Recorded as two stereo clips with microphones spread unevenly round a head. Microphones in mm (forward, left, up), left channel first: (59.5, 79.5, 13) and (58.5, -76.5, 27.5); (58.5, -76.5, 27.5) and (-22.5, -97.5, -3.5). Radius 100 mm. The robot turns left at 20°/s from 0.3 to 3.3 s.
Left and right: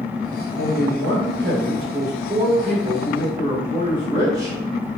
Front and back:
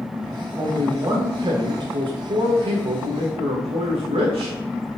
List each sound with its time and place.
0.6 s a man speaking: 110° right, 0.6 m; by 4.6 s 165° right, 0.6 m